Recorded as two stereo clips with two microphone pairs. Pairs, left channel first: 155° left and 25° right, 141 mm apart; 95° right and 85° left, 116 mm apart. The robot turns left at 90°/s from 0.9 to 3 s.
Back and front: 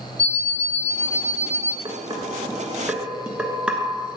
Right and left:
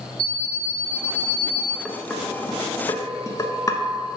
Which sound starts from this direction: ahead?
Dishes clattering, at 1.9 s.